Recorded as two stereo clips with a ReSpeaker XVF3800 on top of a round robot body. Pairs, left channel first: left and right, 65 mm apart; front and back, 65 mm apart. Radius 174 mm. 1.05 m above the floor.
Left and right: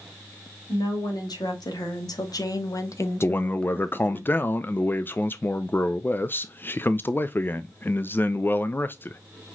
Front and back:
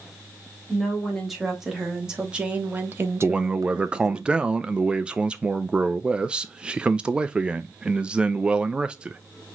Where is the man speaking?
115° left, 0.5 m.